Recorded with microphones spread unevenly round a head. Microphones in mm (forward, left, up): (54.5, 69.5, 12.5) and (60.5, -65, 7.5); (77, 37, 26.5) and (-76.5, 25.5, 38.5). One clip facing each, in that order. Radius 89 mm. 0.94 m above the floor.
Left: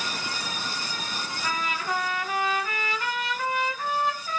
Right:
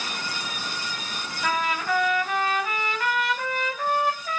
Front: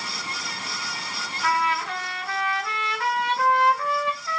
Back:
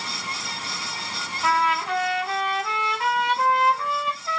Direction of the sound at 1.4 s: 100° right.